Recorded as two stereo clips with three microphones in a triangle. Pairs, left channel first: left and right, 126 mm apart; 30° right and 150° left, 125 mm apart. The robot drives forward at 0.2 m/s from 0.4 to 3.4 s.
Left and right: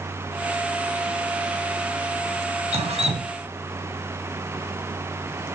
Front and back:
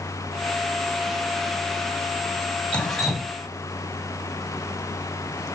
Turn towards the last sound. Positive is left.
turn(degrees=-125)